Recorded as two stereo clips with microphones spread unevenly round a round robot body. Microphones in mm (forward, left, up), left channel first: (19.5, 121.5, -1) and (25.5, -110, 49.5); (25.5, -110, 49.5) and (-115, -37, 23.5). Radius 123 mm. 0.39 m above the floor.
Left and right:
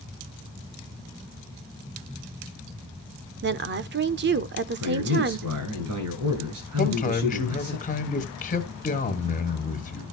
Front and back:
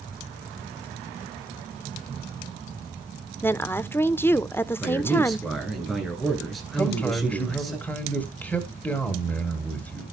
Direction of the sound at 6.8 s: 60° left.